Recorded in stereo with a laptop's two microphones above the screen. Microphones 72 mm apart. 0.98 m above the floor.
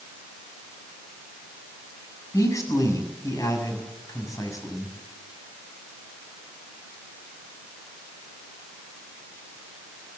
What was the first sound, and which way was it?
A man speaking, 50° left (ahead or behind).